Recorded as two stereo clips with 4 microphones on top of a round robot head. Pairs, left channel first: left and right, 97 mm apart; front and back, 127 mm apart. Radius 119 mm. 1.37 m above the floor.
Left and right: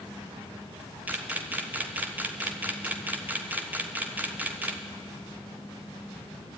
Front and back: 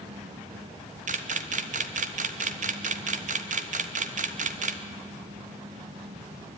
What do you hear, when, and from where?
1.1 s a camera shutter: 165° right, 1.1 m